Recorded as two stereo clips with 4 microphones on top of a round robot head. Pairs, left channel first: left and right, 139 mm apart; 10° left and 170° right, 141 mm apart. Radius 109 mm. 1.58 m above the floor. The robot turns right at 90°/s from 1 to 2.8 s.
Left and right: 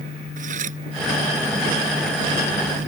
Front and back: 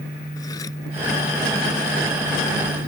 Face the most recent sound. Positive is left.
turn(degrees=100)